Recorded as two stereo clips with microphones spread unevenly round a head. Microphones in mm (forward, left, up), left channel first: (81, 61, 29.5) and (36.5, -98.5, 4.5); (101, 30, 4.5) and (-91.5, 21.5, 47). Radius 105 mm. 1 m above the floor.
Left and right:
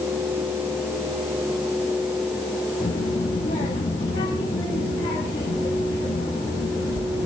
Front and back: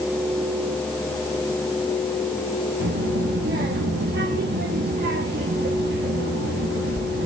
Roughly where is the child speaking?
Behind left.